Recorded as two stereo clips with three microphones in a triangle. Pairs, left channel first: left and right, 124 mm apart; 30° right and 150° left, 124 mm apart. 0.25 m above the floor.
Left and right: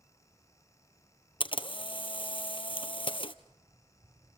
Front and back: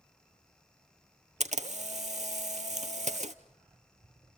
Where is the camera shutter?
135° left, 0.9 m.